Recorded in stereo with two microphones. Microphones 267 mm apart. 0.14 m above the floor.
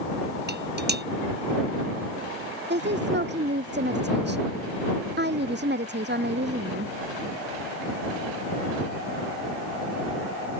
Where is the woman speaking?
40° right (ahead or behind).